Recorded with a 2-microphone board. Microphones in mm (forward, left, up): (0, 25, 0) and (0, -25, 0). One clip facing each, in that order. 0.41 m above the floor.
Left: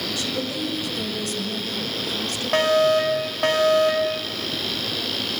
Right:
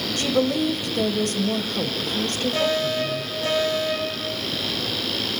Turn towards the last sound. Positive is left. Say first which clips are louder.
# left 8 dB
turn(degrees=60)  # may be behind; listen again after turning